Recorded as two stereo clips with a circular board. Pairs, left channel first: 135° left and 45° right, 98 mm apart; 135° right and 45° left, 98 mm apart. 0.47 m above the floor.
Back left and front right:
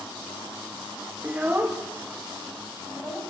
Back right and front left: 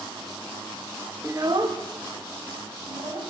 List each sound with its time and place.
1.2 s a child speaking: 20° left, 0.8 m; by 3.2 s 25° left, 3 m